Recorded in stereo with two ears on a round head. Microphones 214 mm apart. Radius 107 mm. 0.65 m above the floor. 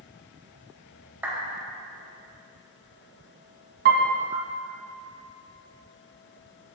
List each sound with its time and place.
1.2 s a clap: 10° right (ahead or behind), 2.5 m
3.9 s a piano: 50° right (ahead or behind), 1.1 m